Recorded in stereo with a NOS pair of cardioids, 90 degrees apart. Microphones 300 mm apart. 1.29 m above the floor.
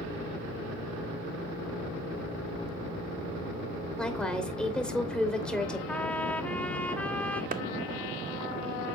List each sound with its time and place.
4.0 s a woman speaking: 5° left, 3 m
5.9 s a trumpet: 5° left, 1.0 m
7.5 s a clap: 25° right, 0.7 m